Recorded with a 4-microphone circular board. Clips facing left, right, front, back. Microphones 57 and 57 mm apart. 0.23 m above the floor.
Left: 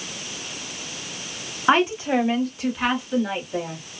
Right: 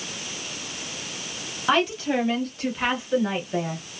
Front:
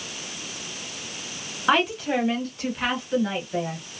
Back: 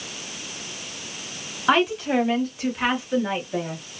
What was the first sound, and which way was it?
A woman speaking, 90° left.